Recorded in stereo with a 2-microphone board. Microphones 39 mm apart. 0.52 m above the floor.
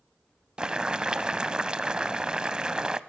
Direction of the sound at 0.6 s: 20° right (ahead or behind).